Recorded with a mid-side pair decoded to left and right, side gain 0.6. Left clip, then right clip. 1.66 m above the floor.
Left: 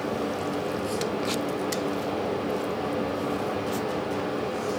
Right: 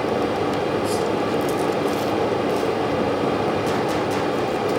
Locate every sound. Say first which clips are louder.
0.0 s a fan: right 7 dB; 45° right, 0.7 m